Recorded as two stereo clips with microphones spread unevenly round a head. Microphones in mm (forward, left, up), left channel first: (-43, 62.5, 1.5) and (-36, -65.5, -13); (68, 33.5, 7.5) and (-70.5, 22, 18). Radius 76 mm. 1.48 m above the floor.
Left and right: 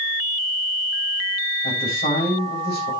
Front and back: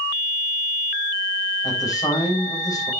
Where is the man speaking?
70° left, 6.5 m.